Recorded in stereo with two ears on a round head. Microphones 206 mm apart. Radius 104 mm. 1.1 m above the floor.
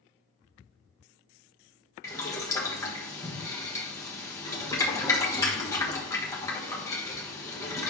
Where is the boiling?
15° left (ahead or behind), 1.3 m.